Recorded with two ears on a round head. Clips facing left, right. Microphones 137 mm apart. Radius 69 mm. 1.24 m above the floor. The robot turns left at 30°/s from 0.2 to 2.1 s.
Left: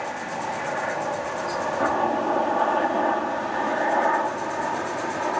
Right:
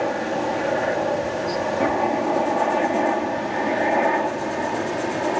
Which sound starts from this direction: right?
A helicopter, at 0.0 s.